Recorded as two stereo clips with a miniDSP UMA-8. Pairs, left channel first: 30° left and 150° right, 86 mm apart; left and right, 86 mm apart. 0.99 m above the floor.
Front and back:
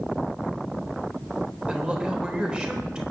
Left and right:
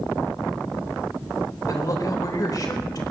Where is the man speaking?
135° left, 3.5 m.